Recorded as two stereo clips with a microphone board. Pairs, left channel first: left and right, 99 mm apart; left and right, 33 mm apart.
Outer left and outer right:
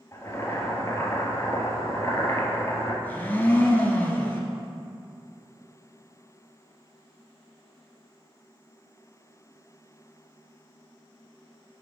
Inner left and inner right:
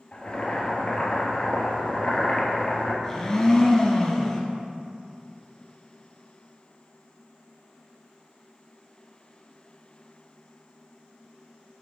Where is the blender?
20° left (ahead or behind), 1.1 m.